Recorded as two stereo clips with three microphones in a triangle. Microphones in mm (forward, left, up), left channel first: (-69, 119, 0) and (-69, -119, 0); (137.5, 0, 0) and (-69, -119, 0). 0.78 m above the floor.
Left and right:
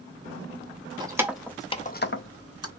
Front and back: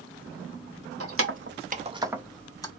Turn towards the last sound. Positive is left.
turn(degrees=105)